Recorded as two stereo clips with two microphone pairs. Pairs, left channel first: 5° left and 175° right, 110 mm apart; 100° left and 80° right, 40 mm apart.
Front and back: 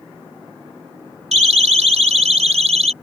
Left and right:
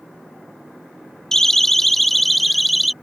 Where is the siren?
Straight behind; by 2.9 s 165° right.